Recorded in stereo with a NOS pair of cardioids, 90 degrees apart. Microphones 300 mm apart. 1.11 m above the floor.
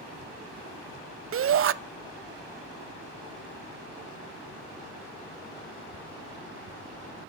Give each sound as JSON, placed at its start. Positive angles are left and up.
{"t": 1.3, "sound": "a shout", "azimuth_deg": -45, "distance_m": 0.7}